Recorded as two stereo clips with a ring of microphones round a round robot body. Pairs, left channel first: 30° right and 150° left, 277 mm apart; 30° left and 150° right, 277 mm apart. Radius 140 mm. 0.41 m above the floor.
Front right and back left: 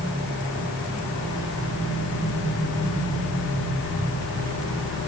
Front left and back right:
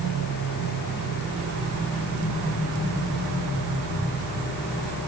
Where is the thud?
I don't hear a thud.